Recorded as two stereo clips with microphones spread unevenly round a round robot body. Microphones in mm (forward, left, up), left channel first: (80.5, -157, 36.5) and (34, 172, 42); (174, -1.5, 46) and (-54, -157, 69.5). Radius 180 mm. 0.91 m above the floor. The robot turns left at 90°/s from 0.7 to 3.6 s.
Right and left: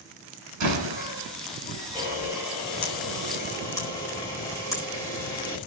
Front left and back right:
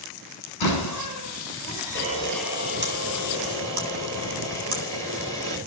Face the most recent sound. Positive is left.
turn(degrees=-165)